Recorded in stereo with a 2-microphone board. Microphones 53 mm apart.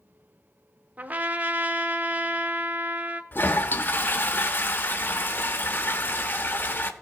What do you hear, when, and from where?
1.0 s a trumpet: 30° right (ahead or behind), 0.7 m
3.3 s a toilet flushing: 40° left (ahead or behind), 0.8 m